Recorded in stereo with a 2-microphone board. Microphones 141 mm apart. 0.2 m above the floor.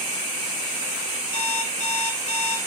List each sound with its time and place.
1.3 s an alarm clock: 50° left (ahead or behind), 1.1 m